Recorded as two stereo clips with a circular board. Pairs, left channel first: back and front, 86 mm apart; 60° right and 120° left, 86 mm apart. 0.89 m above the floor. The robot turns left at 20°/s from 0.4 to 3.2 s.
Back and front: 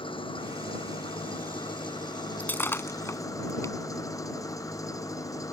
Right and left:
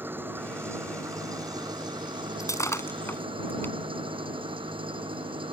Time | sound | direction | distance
0.0 | an engine running | 175° right | ?
2.4 | breaking glass | 110° right | ?